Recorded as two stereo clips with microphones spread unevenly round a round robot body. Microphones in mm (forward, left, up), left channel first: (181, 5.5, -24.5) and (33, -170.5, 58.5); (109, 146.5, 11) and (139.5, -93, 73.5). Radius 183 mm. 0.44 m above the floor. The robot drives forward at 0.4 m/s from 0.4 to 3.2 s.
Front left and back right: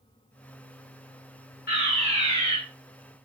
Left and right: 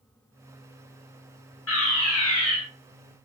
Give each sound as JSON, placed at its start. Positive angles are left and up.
{"t": 1.7, "sound": "a fire alarm", "azimuth_deg": 95, "distance_m": 7.5}